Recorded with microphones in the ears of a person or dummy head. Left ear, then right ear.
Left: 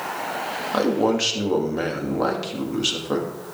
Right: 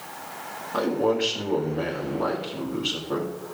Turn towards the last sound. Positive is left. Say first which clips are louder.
# left 2 dB
turn(degrees=75)  # may be behind; listen again after turning